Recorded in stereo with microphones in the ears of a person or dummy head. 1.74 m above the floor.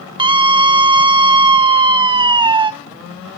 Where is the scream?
30° right (ahead or behind), 1.3 m.